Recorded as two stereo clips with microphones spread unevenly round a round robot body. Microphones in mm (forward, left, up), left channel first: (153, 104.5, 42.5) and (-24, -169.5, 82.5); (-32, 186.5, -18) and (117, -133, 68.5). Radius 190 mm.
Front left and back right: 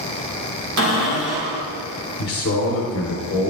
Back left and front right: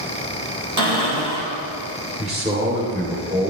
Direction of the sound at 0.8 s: 80° right.